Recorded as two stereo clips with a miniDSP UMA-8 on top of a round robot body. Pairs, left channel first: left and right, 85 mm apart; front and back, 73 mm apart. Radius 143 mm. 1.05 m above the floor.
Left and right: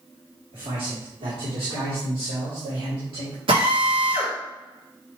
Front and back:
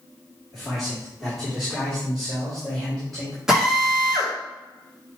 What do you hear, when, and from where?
0.5 s a man speaking: 90° right, 2.5 m
3.5 s a drill: 100° right, 2 m